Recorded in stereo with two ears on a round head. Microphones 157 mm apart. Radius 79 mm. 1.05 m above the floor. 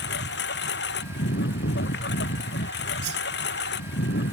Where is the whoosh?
65° right (ahead or behind).